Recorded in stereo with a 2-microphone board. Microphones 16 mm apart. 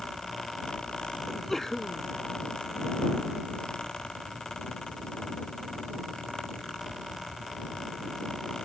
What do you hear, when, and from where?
1.3 s a sneeze: 20° left (ahead or behind)